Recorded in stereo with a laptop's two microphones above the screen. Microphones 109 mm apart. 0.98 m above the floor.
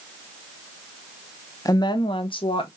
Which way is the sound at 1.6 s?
30° left (ahead or behind).